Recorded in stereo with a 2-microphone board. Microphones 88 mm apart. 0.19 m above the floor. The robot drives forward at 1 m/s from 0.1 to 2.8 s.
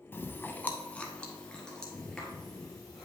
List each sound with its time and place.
0.1 s chewing: 25° left (ahead or behind), 0.6 m; by 3.0 s 5° left (ahead or behind), 2.5 m